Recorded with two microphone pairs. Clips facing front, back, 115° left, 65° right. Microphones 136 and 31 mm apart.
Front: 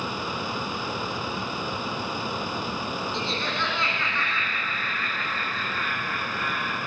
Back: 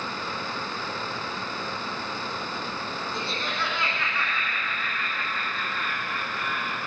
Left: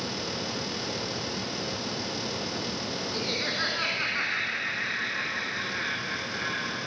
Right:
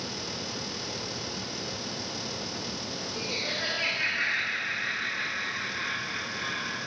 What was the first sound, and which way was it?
Laughter, 100° left.